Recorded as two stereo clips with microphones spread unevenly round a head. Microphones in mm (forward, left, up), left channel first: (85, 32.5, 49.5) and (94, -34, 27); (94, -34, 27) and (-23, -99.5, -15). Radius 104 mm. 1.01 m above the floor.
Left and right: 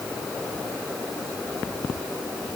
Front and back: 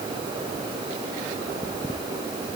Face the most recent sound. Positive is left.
No sound to turn to.